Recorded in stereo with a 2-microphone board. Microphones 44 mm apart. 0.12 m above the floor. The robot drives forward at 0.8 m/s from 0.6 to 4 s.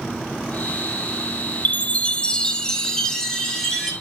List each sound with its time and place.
1.6 s a chime: 40° left (ahead or behind), 0.6 m; by 3.9 s 10° left (ahead or behind), 2 m